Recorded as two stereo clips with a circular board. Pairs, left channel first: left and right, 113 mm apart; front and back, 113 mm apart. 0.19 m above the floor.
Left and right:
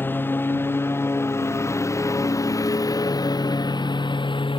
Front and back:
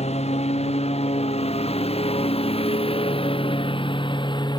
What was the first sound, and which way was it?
A lawn mower, 20° left.